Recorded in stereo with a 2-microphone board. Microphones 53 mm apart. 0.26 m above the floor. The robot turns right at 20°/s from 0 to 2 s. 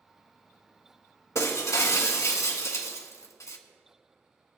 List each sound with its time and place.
1.4 s breaking glass: 60° left (ahead or behind), 1.2 m; by 3.6 s 65° left (ahead or behind), 1.2 m